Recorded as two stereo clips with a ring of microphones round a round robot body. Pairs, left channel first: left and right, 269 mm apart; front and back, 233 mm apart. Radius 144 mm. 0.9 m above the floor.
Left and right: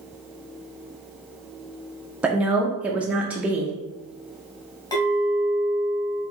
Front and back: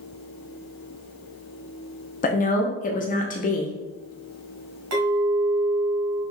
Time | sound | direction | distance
2.2 | a woman speaking | 10° right | 0.5 m
4.9 | a clink | 165° left | 1.5 m